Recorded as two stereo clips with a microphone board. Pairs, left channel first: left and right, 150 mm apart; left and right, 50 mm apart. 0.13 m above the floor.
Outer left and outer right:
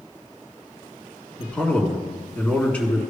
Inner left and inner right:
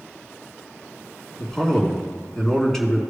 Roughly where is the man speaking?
Centre.